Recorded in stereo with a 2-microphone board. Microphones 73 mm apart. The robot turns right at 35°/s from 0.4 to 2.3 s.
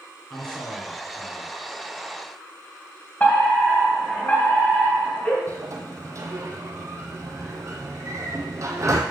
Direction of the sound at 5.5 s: 45° right (ahead or behind).